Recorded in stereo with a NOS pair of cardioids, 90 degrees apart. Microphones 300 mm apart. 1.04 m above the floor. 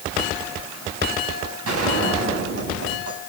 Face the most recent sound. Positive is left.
turn(degrees=-50)